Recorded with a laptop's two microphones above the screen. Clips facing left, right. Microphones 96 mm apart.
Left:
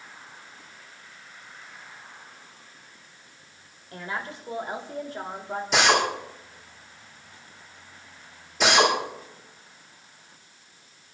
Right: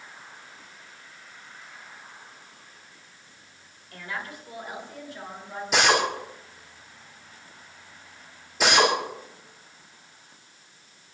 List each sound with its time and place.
3.9 s a woman speaking: 25° left (ahead or behind), 4 m; by 5.6 s 50° left (ahead or behind), 3 m
5.7 s a drill: 5° right (ahead or behind), 4 m